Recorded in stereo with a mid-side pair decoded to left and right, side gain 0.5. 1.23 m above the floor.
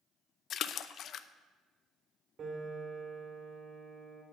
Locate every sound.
0.5 s a splash: 60° left, 0.6 m
2.4 s a piano: 45° right, 3 m